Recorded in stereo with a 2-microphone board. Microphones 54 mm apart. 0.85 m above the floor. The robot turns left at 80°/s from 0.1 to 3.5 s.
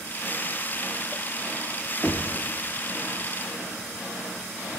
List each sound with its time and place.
2.0 s knocking: 20° left (ahead or behind), 1.2 m; by 2.4 s 5° right (ahead or behind), 1.2 m